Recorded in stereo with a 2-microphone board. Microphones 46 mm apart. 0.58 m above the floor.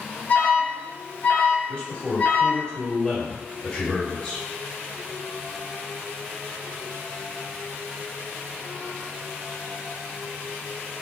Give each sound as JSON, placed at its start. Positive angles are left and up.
{"t": 0.3, "sound": "an alarm", "side_deg": 40, "distance_m": 1.2}
{"t": 1.7, "sound": "a man speaking", "side_deg": 20, "distance_m": 2.0}